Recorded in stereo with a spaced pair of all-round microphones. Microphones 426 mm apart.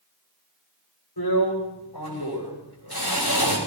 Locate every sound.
1.2 s a drill: 60° left (ahead or behind), 9.5 m